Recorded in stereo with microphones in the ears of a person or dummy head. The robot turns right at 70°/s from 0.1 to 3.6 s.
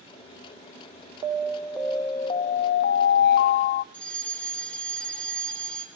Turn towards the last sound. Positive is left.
turn(degrees=5)  # may be behind; listen again after turning